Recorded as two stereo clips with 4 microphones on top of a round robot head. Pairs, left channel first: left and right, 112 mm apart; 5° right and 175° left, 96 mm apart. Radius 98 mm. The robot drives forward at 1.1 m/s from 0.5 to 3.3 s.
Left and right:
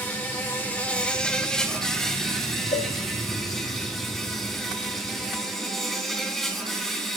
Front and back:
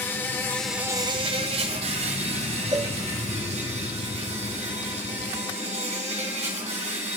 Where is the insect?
30° left, 0.7 m; by 7.2 s straight behind, 3 m.